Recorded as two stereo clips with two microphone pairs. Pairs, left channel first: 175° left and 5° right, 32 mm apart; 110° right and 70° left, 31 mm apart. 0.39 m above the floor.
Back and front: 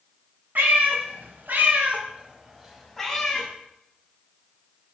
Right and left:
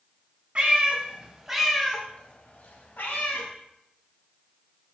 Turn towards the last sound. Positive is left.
turn(degrees=-105)